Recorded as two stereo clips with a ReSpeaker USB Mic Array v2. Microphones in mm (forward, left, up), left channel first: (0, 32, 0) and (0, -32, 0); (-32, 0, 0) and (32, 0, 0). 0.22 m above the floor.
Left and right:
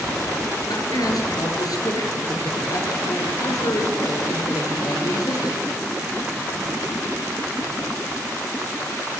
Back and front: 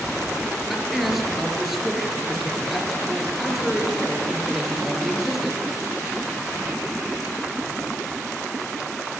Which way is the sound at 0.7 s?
85° left.